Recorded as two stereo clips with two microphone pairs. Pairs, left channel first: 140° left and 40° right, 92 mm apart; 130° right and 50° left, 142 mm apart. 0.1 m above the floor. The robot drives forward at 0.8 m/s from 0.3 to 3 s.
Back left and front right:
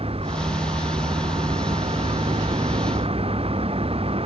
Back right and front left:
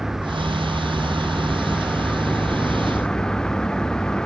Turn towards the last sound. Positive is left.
turn(degrees=-45)